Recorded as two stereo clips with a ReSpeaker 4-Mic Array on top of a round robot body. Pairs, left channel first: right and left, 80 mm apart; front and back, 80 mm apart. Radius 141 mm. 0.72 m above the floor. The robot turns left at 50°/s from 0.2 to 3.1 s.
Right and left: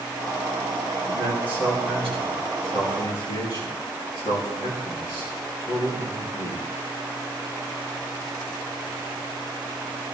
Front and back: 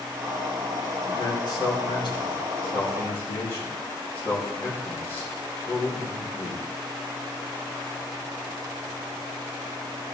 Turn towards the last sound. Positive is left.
turn(degrees=-60)